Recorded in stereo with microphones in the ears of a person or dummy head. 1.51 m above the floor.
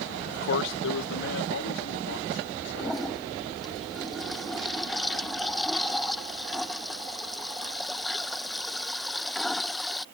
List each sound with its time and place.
0.3 s a man speaking: 40° left (ahead or behind); by 3.8 s 65° left (ahead or behind)
2.8 s a toilet flushing: centre (ahead or behind)